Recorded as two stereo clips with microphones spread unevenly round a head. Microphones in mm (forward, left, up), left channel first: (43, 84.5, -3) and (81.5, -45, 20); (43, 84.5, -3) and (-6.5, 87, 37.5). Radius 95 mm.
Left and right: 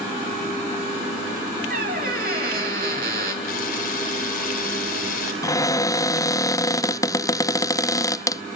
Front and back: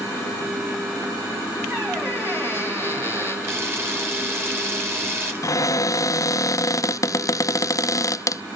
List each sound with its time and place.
1.7 s a squeak: 115° right, 3 m
3.4 s a camera shutter: 135° left, 4 m
5.4 s a cupboard door: 35° left, 0.7 m